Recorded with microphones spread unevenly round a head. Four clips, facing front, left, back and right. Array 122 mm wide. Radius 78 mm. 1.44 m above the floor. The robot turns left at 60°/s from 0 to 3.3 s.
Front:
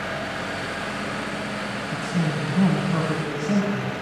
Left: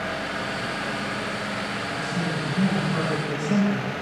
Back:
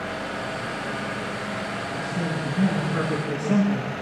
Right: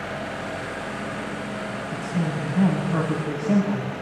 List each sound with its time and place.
1.9 s a man speaking: 15° right, 8.5 m; by 3.9 s 100° right, 8.5 m